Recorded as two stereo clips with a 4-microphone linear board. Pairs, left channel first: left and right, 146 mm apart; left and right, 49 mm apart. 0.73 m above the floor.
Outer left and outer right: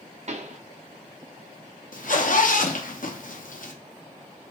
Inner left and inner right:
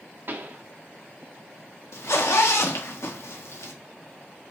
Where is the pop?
50° right (ahead or behind), 0.7 m.